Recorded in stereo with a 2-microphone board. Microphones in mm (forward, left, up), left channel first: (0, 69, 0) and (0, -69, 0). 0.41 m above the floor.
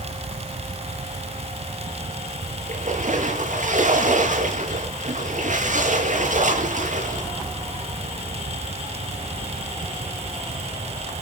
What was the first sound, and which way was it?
A splash, 65° right (ahead or behind).